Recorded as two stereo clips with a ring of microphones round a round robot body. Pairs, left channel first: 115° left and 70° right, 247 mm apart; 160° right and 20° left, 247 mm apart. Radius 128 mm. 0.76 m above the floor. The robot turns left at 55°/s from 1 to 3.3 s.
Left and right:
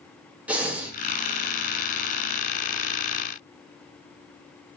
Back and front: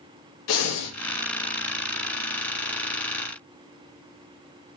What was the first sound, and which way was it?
Breathing, 150° right.